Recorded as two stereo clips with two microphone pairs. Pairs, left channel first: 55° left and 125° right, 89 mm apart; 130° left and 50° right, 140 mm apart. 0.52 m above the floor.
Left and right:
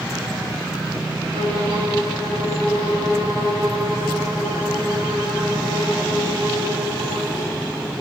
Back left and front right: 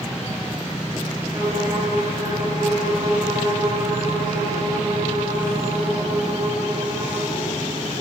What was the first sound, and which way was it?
A violin, 115° right.